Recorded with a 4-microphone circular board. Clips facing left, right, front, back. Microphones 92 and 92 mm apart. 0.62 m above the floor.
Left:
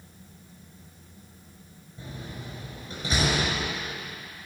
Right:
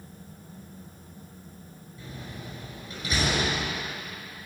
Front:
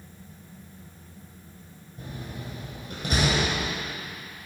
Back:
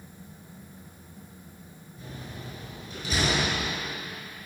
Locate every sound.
2.0 s a door slam: 25° left, 5.5 m